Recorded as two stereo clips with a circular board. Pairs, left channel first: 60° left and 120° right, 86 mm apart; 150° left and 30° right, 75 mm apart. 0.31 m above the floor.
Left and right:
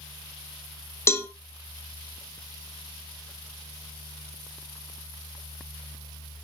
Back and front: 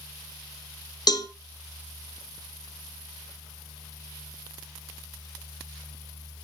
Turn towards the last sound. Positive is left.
turn(degrees=120)